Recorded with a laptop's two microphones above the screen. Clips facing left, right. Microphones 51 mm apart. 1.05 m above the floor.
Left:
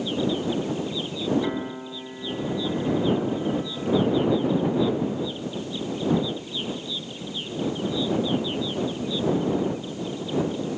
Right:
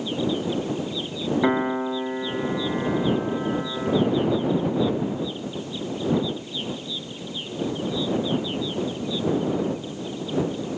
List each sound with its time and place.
1.4 s a piano: 45° right (ahead or behind)